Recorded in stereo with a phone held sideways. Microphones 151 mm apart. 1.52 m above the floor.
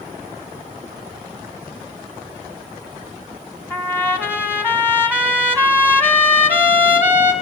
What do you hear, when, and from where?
3.7 s a trumpet: 15° left (ahead or behind), 1.6 m